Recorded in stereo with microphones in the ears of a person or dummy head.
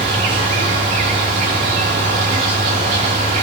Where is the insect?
40° right (ahead or behind), 1.3 m.